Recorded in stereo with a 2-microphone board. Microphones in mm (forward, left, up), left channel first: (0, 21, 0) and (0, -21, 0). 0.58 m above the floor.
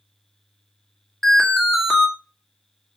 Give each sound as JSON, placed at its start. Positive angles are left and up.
{"t": 1.2, "sound": "an alarm", "side_deg": 10, "distance_m": 2.0}